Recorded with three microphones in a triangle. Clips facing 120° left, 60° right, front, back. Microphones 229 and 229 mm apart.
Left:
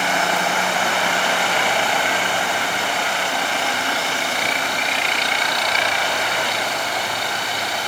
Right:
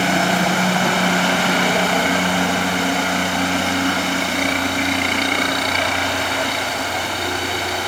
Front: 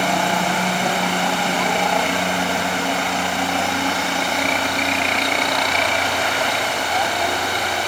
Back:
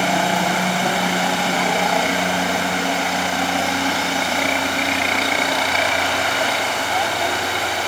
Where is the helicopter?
100° right; by 7.9 s 95° right.